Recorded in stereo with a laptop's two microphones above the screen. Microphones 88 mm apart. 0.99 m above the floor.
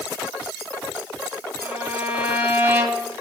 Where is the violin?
20° right (ahead or behind), 6 m.